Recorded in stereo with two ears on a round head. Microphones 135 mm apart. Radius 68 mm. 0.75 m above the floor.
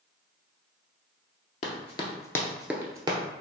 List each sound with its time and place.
1.6 s running footsteps: 50° left (ahead or behind), 1.0 m; by 3.2 s 30° right (ahead or behind), 1.0 m